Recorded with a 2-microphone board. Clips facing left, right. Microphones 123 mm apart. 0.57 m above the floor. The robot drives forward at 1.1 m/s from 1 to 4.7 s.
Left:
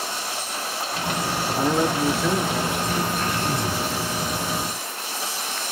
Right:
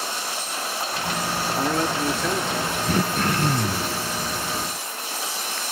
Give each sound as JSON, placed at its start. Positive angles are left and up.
{"t": 1.6, "sound": "a man speaking", "side_deg": 10, "distance_m": 0.7}
{"t": 2.9, "sound": "throat clearing", "side_deg": -60, "distance_m": 0.8}